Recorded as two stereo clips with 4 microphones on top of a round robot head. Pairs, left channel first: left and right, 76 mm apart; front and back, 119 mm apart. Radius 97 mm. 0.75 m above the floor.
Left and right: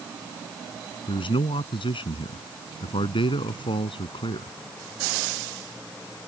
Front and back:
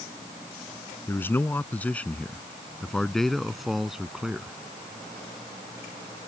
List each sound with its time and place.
1.1 s a man speaking: 75° left; by 4.5 s 95° left